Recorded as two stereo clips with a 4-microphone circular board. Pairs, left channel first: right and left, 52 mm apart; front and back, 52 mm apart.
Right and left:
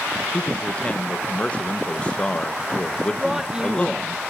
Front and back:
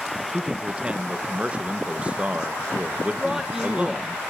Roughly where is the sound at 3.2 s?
Behind left.